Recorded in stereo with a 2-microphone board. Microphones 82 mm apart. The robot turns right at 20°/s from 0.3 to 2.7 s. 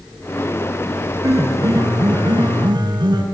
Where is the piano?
40° right (ahead or behind), 6.5 m; by 3.2 s 65° right (ahead or behind), 6.5 m.